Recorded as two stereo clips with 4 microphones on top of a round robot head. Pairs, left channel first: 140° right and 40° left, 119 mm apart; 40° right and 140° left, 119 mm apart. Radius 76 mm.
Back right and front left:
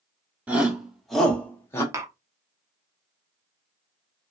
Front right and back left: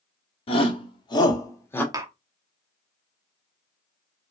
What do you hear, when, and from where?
0.5 s a shout: 35° right, 1.5 m; by 1.8 s 100° right, 1.1 m
1.9 s tapping: 95° left, 0.8 m